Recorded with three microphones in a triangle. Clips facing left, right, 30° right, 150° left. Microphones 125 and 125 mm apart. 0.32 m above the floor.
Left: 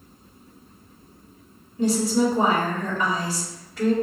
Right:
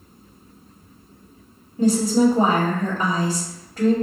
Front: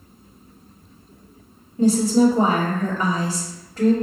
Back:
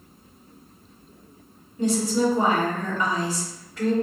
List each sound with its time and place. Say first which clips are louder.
1.8 s a woman speaking: right 4 dB, front 6 dB; 65° right, 1.9 m